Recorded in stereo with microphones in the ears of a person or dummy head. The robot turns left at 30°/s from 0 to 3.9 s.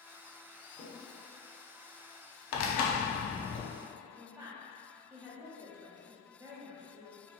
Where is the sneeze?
I don't hear a sneeze.